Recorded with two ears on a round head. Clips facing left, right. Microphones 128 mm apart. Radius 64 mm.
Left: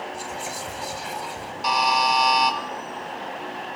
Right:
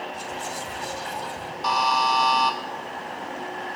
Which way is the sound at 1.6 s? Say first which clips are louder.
Left 1 dB; 15° left (ahead or behind).